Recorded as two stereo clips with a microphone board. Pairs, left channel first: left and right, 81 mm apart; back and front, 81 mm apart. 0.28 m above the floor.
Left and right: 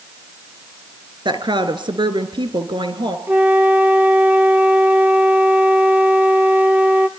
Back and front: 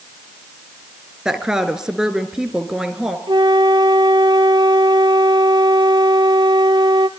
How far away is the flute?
About 1.3 m.